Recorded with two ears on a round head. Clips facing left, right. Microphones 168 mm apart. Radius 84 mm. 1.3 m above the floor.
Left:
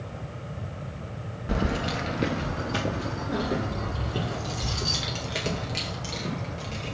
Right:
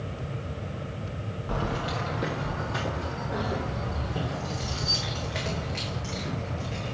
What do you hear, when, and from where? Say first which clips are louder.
1.5 s keys jangling: left 3 dB; 20° left (ahead or behind), 1.1 m; by 6.9 s 45° left (ahead or behind), 5 m